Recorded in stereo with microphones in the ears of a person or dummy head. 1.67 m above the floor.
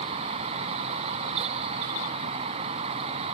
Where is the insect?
35° right (ahead or behind).